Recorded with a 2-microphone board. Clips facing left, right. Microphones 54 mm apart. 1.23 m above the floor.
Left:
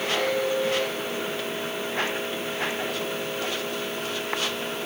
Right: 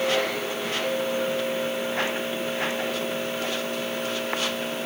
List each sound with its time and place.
Only background noise.